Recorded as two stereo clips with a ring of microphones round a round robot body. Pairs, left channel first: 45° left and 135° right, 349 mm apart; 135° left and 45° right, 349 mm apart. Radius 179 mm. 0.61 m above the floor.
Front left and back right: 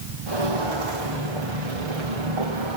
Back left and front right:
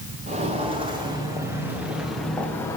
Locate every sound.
0.3 s footsteps: 120° right, 4 m; by 2.8 s 145° right, 3 m